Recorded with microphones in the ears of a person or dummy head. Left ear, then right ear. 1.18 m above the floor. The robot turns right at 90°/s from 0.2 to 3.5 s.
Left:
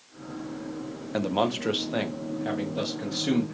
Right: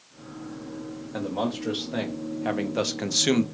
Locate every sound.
1.1 s a man speaking: 90° left, 0.6 m; by 3.5 s 60° right, 0.6 m